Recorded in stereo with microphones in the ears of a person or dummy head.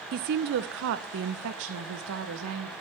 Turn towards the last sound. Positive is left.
turn(degrees=-75)  # may be behind; listen again after turning